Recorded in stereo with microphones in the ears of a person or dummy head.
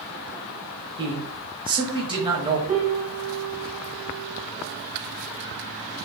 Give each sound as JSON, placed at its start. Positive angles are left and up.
{"t": 1.0, "sound": "a man speaking", "side_deg": -25, "distance_m": 1.1}
{"t": 2.7, "sound": "a piano", "side_deg": -45, "distance_m": 1.0}